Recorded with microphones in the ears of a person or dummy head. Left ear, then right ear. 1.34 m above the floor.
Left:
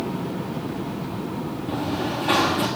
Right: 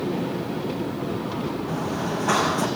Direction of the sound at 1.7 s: 70° right (ahead or behind).